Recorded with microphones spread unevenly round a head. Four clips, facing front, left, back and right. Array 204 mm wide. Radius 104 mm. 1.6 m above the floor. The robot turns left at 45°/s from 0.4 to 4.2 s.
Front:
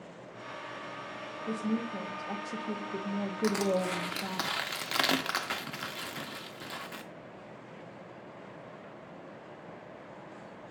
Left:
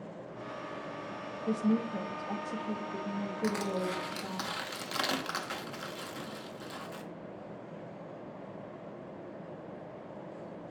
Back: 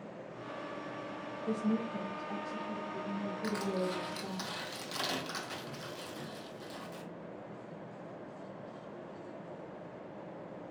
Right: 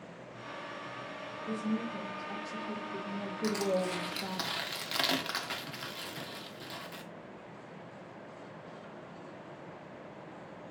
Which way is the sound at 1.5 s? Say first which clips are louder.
Left 5 dB, even; 70° left.